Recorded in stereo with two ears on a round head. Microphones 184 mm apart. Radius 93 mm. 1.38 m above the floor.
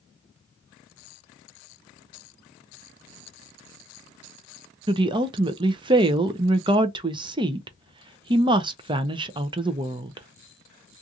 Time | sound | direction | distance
4.9 | a woman speaking | 25° right (ahead or behind) | 0.5 m